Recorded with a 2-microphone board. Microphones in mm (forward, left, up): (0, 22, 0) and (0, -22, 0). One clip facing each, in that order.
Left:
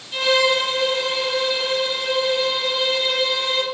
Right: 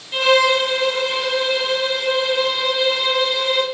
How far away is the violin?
About 0.8 m.